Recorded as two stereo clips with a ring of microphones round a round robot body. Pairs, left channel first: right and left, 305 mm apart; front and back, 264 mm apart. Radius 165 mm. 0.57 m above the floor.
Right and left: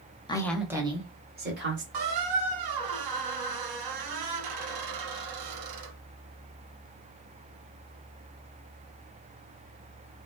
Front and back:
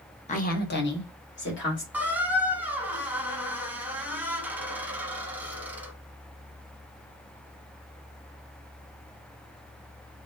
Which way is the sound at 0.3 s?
30° right.